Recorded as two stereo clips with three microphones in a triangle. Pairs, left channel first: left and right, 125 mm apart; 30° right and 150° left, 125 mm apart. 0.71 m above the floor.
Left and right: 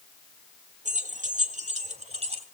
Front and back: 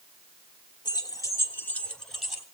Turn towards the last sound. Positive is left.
turn(degrees=-125)